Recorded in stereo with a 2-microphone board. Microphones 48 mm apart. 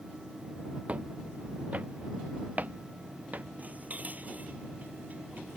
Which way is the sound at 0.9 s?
30° right (ahead or behind).